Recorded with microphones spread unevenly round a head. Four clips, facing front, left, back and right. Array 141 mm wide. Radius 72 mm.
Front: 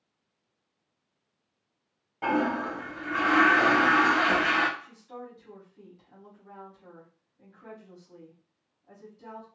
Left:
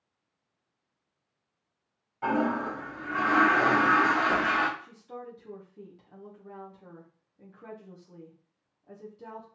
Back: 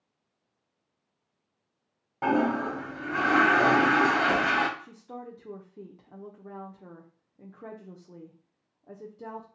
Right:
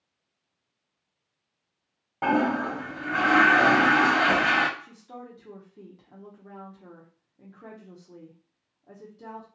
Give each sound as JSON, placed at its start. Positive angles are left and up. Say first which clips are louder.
{"t": 2.2, "sound": "a toilet flushing", "louder": "right 3 dB, back 2 dB", "azimuth_deg": -120, "distance_m": 0.8}
{"t": 4.8, "sound": "a woman speaking", "louder": "even, back 1 dB", "azimuth_deg": -160, "distance_m": 0.6}